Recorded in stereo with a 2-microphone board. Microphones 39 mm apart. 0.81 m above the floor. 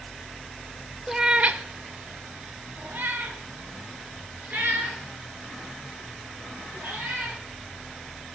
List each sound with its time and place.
1.1 s a cat meowing: 10° right (ahead or behind), 0.7 m; by 7.4 s 50° right (ahead or behind), 6.5 m